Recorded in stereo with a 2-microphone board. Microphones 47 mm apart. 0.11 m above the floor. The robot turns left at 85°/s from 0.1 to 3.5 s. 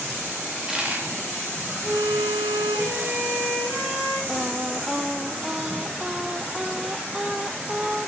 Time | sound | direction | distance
0.5 | a dropped coin | 10° left (ahead or behind) | 4 m
1.8 | a violin | 40° right | 8.5 m
4.3 | singing | 10° right (ahead or behind) | 0.7 m